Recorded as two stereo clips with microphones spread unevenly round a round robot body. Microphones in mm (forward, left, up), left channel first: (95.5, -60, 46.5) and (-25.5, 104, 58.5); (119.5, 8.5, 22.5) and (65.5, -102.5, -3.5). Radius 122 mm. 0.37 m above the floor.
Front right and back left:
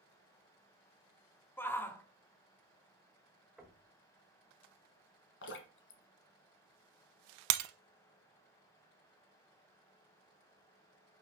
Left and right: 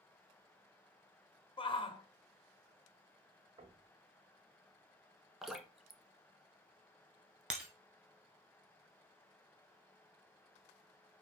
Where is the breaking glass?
155° left, 0.6 m.